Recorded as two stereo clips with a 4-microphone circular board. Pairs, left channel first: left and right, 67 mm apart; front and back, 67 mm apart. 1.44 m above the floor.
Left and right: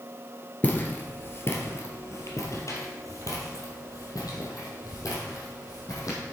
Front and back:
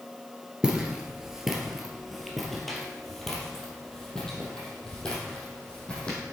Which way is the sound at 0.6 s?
120° left.